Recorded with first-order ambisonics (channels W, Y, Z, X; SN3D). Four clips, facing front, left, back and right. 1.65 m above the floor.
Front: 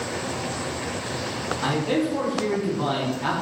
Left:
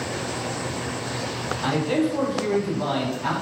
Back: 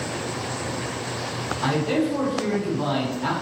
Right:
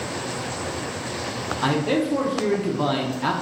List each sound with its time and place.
1.6 s a man speaking: 90° right, 0.7 m